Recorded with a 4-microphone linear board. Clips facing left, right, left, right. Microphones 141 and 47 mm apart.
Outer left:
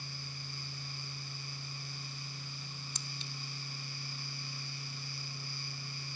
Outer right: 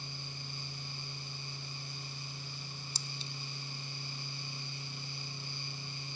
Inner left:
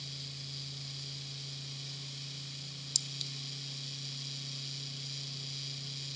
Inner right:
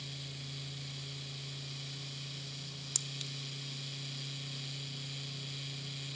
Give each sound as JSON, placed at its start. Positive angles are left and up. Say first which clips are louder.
{"t": 3.0, "sound": "a clink", "louder": "outer right 1 dB, inner left 1 dB", "side_deg": -35, "distance_m": 0.8}